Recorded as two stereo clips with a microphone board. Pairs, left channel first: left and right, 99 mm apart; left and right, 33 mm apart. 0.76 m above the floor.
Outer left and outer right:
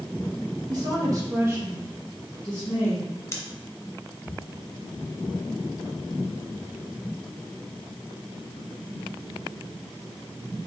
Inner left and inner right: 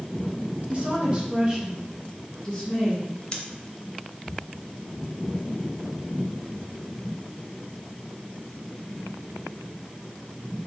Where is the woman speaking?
40° right (ahead or behind), 1.5 m; by 3.2 s 25° left (ahead or behind), 1.8 m.